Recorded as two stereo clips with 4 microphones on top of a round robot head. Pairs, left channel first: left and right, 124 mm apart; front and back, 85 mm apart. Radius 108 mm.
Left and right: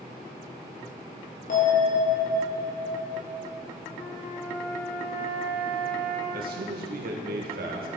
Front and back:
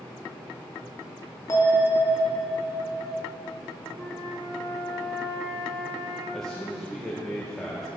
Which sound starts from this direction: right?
A man speaking, at 6.3 s.